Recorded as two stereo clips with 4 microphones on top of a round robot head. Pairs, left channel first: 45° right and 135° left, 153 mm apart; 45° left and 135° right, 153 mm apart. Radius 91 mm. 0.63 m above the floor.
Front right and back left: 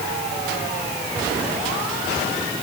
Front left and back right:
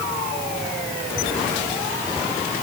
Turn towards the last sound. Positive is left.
No sound to turn to.